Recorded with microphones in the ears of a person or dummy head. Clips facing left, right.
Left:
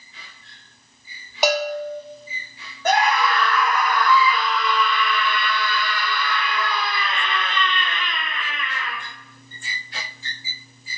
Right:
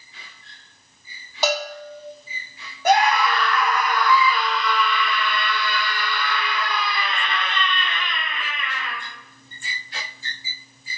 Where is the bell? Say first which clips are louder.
Left 4 dB; 10° left (ahead or behind), 0.6 m.